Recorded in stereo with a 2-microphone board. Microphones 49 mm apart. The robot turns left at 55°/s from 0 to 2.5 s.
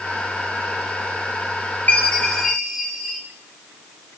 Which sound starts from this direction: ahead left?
A chime, at 1.9 s.